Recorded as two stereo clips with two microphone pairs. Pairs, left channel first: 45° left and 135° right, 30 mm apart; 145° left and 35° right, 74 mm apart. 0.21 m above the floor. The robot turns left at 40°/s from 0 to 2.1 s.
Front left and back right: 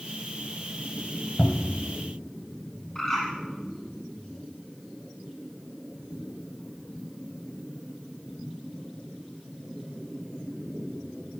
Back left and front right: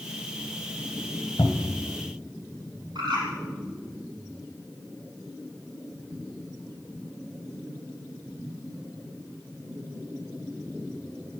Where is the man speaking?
I don't hear a man speaking.